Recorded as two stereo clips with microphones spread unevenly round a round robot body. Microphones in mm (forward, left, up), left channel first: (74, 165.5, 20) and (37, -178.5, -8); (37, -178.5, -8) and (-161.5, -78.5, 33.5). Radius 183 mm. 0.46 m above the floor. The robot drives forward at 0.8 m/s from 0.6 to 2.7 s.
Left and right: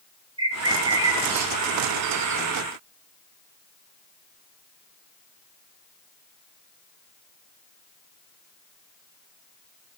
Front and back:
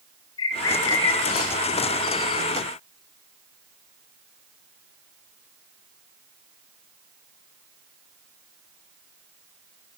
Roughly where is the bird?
Ahead.